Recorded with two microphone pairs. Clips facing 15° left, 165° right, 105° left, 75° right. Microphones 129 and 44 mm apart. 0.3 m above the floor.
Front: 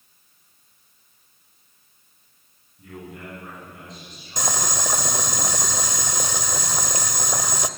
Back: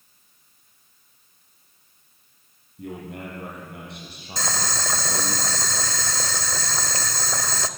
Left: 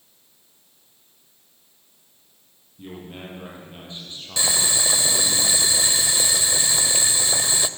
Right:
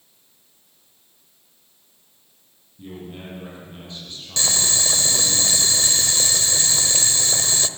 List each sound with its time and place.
2.8 s a man speaking: 175° left, 9.5 m; by 5.4 s straight behind, 7.5 m
4.4 s boiling: 50° left, 1.1 m